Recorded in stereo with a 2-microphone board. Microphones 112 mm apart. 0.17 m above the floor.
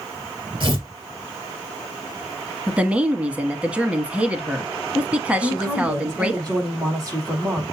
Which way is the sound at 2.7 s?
10° right (ahead or behind).